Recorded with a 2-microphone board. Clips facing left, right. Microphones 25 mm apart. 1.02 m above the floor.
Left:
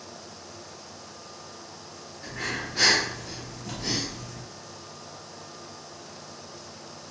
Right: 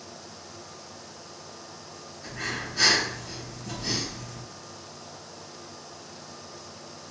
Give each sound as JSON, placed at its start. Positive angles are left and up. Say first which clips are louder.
{"t": 2.2, "sound": "breathing", "louder": "left 1 dB", "side_deg": 70, "distance_m": 1.2}